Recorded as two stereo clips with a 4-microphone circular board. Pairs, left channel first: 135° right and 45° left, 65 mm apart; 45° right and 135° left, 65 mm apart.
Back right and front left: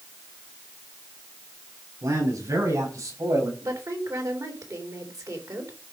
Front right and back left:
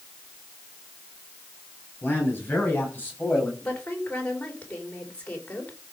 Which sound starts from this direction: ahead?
A man speaking, at 2.0 s.